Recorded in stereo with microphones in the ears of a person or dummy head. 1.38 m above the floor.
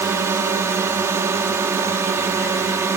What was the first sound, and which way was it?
A drone, 10° right (ahead or behind).